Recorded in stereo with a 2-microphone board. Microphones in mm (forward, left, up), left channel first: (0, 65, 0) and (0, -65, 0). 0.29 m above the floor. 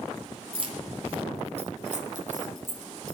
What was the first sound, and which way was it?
Keys jangling, 40° right (ahead or behind).